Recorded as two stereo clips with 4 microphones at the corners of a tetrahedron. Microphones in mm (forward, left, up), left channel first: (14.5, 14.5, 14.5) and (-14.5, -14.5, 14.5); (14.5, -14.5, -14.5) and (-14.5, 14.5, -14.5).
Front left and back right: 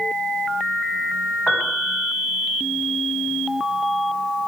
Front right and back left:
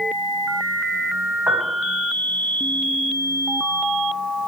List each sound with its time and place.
1.5 s a piano: 125° left, 5.5 m